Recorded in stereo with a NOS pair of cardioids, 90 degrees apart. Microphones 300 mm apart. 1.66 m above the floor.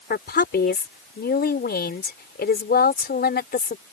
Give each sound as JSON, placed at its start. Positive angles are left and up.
{"t": 0.1, "sound": "a woman speaking", "azimuth_deg": 35}